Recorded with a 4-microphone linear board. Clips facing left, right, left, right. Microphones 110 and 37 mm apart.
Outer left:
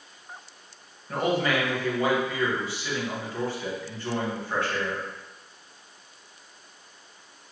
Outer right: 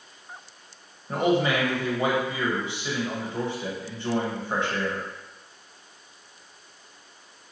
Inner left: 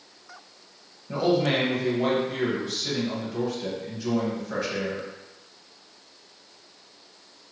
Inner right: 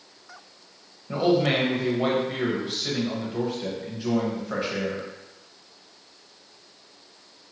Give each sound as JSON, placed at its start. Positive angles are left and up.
{"t": 1.1, "sound": "a man speaking", "side_deg": -20, "distance_m": 0.9}